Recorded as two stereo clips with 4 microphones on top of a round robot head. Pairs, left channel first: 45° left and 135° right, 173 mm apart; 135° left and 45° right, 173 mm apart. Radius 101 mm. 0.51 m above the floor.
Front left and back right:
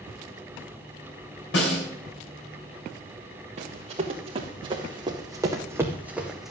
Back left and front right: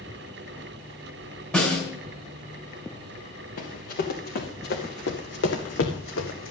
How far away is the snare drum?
About 6.5 m.